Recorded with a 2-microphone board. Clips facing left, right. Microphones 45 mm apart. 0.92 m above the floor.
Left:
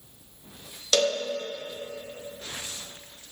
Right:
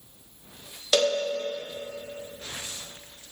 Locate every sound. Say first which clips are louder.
0.9 s a cowbell: right 1 dB; 15° right (ahead or behind), 0.6 m